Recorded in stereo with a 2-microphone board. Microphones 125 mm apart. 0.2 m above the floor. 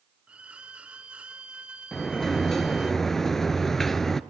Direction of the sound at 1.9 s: 5° left (ahead or behind).